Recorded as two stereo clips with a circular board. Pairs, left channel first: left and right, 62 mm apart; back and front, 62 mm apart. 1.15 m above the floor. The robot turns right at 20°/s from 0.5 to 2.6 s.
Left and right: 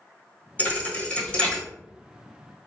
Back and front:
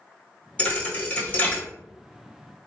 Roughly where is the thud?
Behind left.